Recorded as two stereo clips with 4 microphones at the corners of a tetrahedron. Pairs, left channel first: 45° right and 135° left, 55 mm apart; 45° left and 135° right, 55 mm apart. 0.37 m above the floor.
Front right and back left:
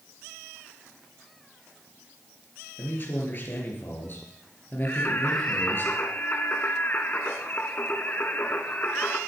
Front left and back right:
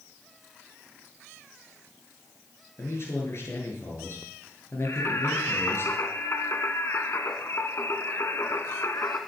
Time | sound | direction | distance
2.8 | a man speaking | 5° left | 5 m
4.8 | singing | 10° left | 1.7 m